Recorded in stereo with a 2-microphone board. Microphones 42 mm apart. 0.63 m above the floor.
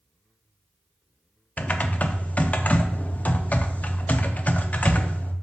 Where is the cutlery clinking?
I don't hear cutlery clinking.